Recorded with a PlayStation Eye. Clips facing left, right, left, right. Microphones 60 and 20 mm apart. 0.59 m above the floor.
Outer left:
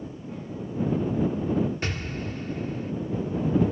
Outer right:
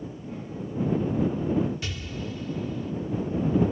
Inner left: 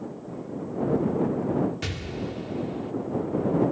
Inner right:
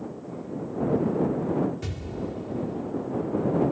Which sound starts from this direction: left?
An explosion, at 1.8 s.